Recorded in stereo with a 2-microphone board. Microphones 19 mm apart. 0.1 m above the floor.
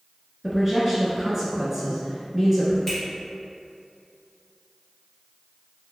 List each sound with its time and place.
0.4 s a man speaking: 15° right (ahead or behind), 1.1 m
2.9 s a finger snap: 15° left (ahead or behind), 1.8 m